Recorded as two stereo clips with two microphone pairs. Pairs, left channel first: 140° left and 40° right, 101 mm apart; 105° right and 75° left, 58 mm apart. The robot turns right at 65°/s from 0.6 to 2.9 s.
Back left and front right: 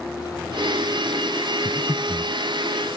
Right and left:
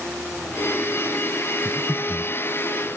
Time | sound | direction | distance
1.6 | breathing | 175° right | 0.6 m